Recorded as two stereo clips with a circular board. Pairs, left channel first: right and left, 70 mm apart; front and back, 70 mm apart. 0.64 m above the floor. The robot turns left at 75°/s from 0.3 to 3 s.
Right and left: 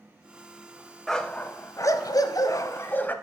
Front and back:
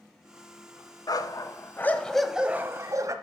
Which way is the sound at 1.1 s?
5° right.